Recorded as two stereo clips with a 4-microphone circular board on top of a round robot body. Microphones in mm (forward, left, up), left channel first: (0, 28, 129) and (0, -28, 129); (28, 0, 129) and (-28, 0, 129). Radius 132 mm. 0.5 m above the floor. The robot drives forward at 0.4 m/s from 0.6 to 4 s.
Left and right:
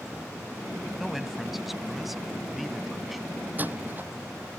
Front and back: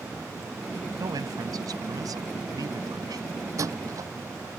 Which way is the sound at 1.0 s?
Straight behind.